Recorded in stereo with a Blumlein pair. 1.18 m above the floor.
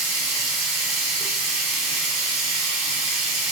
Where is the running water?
35° right, 0.8 m.